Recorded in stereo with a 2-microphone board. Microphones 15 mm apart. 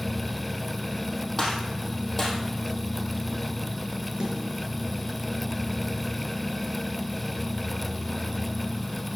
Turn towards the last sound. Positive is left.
turn(degrees=-55)  # may be behind; listen again after turning